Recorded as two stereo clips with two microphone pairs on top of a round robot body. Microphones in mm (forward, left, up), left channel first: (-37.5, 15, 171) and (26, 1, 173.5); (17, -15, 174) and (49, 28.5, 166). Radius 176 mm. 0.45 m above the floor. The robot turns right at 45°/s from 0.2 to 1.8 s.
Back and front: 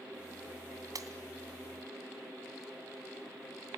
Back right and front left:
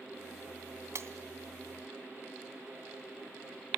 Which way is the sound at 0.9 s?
20° left.